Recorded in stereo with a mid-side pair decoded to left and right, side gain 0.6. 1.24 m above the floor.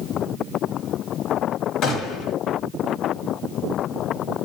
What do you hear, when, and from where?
1.8 s a gunshot: 65° left, 1.4 m